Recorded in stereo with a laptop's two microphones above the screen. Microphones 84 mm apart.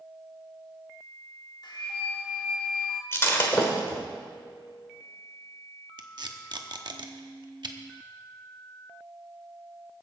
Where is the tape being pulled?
60° right (ahead or behind), 0.9 m.